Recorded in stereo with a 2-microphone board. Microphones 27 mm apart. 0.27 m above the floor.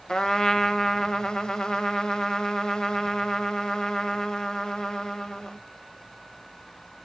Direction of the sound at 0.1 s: 25° left (ahead or behind).